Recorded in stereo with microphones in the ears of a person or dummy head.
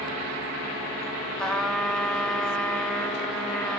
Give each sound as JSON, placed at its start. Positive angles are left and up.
{"t": 1.4, "sound": "a trumpet", "side_deg": 5, "distance_m": 2.5}